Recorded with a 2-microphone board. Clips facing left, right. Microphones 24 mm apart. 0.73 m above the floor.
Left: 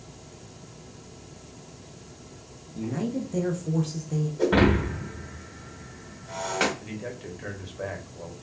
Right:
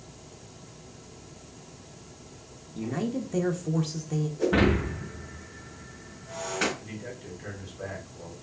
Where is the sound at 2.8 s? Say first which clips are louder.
Left 1 dB; 20° right (ahead or behind), 0.5 m.